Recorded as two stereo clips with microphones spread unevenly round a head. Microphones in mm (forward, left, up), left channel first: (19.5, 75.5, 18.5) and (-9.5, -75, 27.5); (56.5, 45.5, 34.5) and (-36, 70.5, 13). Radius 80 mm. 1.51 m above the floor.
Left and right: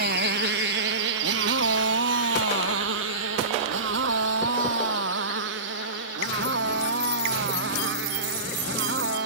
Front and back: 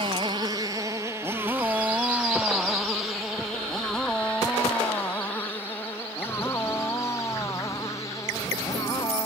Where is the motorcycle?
135° right; by 9.3 s 85° right.